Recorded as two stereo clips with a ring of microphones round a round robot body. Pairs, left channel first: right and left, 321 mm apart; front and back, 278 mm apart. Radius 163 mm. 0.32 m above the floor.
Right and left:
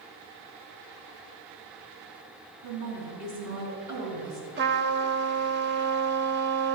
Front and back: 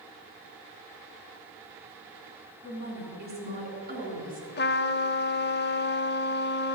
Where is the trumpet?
40° left, 0.7 m.